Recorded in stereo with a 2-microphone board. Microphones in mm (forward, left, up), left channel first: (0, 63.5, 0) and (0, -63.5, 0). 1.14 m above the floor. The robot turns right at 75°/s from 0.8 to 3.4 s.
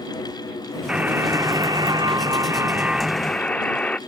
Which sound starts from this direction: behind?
A buzzer, at 0.9 s.